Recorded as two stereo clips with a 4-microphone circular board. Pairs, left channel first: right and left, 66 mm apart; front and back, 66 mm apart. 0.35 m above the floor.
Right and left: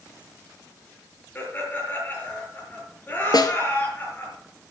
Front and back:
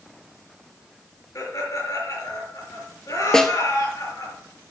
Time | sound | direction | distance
1.4 | laughter | 30° right | 6.5 m
3.3 | a snare drum | 80° right | 1.1 m